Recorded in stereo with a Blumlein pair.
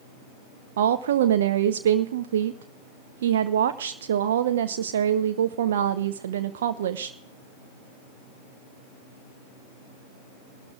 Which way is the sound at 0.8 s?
60° right.